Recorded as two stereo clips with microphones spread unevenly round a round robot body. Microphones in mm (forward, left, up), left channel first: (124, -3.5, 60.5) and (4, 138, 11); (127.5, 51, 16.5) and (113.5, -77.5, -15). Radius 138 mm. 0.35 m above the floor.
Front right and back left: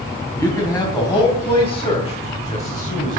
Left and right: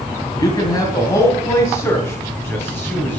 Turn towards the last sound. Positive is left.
turn(degrees=0)